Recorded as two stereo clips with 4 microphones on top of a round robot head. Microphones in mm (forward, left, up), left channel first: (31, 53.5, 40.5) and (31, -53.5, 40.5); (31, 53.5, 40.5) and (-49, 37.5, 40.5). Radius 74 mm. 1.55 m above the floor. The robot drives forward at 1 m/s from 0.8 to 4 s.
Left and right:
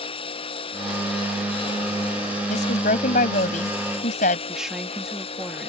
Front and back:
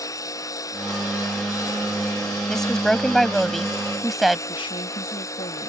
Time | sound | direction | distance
0.0 | a lawn mower | 55° left | ?
2.5 | a woman speaking | 95° left | ?
4.5 | a woman speaking | 5° right | ?